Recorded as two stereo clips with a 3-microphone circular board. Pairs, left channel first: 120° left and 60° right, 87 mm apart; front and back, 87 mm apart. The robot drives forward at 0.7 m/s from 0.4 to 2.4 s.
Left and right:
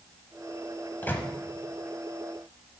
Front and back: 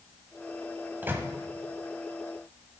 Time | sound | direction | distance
1.0 | a microwave | 150° left | 1.0 m